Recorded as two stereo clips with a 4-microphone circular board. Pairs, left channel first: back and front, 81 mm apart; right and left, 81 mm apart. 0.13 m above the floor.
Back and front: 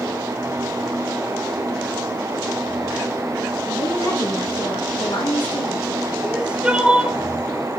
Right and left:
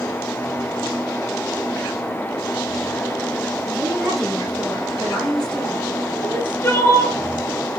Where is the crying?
65° right, 1.7 m.